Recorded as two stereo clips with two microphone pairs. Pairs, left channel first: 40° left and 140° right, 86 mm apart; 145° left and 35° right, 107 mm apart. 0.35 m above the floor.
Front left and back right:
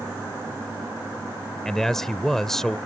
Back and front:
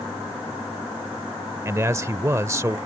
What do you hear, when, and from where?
1.6 s a man speaking: 40° right